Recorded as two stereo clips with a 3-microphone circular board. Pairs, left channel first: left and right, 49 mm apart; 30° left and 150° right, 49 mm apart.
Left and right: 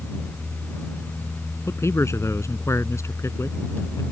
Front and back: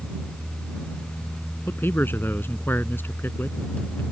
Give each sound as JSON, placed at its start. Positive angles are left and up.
{"t": 1.7, "sound": "a man speaking", "azimuth_deg": 75}